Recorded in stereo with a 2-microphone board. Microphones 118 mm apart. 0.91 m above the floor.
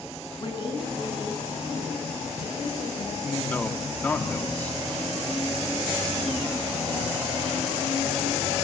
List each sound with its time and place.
0.4 s a woman speaking: 40° left (ahead or behind), 9 m
3.2 s a man speaking: 15° left (ahead or behind), 2.5 m